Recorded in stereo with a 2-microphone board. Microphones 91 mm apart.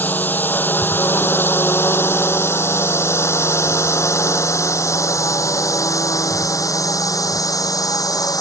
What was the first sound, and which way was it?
A drone, 20° left (ahead or behind).